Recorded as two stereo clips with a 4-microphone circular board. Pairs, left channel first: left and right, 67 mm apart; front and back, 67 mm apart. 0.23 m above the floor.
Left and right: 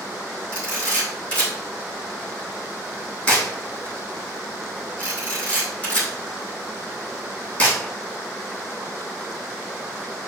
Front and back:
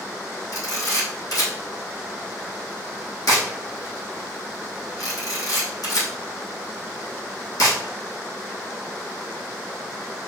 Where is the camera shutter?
20° left, 3.5 m.